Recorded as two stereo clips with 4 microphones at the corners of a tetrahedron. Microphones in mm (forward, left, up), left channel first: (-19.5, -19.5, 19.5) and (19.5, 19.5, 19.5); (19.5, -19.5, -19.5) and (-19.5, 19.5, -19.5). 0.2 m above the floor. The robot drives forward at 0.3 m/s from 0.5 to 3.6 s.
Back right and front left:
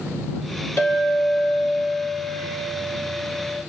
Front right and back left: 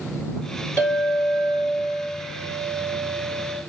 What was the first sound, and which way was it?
A clink, 90° right.